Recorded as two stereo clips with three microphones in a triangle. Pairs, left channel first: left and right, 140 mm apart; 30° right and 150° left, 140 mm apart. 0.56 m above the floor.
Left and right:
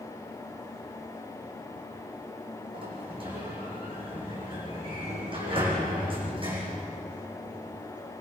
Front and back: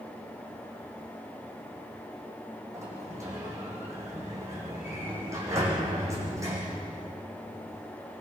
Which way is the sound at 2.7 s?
140° right.